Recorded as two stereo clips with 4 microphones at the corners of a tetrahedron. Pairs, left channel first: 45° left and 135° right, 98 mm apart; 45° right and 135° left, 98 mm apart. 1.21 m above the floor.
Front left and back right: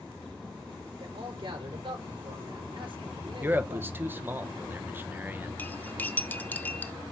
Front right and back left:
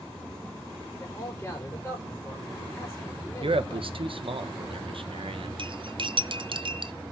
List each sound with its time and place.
1.0 s a man speaking: 110° right, 4.5 m
3.4 s a man speaking: 155° left, 0.8 m
5.6 s cutlery clinking: 115° left, 0.5 m